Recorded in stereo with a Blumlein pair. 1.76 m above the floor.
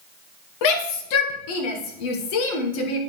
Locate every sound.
0.6 s a shout: 45° left, 1.3 m